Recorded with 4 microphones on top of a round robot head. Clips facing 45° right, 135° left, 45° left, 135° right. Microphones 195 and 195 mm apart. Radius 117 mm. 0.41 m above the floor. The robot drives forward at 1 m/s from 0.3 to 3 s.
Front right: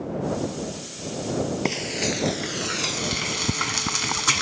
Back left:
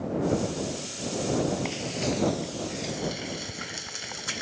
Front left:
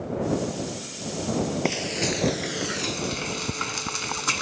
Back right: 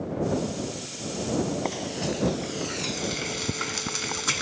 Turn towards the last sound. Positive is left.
turn(degrees=-55)